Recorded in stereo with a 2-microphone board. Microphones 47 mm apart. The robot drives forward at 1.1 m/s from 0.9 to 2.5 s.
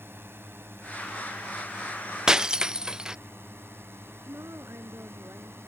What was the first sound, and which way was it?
A drone, 55° right (ahead or behind).